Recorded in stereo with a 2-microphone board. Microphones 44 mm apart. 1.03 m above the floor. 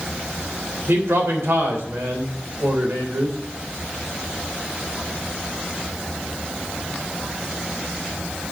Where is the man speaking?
70° right (ahead or behind), 3 m.